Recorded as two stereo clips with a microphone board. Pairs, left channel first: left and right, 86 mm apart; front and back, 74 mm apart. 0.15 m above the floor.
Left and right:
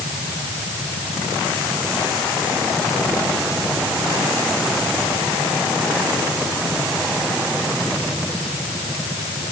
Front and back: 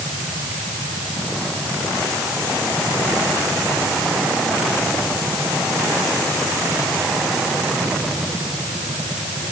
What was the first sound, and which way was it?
Only background noise.